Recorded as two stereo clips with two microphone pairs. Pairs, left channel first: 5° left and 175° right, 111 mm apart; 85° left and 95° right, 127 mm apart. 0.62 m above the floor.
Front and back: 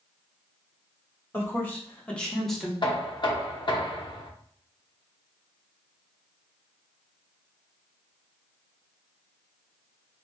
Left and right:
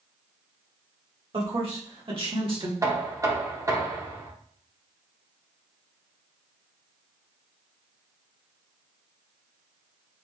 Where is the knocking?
35° right, 0.8 m.